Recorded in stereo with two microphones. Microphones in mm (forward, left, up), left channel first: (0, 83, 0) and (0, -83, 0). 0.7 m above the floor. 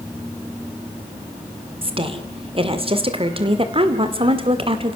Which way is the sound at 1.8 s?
35° right (ahead or behind).